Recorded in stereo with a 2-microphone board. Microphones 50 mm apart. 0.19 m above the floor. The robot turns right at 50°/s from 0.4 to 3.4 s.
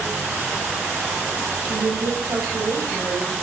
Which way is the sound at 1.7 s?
130° right.